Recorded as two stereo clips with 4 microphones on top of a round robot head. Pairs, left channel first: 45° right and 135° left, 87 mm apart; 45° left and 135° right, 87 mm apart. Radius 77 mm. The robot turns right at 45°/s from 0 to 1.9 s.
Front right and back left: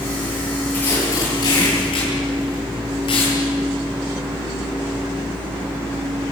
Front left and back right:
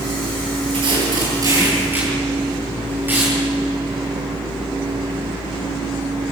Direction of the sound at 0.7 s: 120° right.